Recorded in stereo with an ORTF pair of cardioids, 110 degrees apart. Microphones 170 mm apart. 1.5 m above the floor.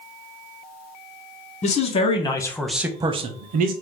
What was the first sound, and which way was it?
A man speaking, 45° left.